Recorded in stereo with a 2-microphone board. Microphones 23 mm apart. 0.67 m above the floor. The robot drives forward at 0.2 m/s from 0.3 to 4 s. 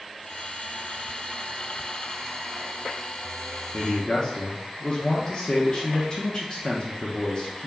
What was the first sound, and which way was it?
A man speaking, 30° left (ahead or behind).